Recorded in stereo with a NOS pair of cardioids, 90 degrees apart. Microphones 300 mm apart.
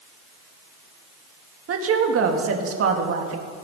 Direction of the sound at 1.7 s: 50° right.